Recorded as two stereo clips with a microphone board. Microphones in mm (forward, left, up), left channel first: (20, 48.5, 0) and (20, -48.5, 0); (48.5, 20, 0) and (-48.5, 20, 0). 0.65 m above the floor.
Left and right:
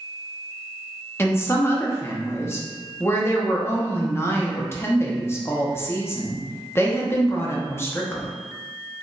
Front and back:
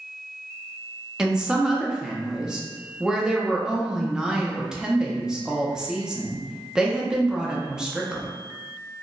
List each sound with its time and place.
1.2 s a woman speaking: 105° left, 0.6 m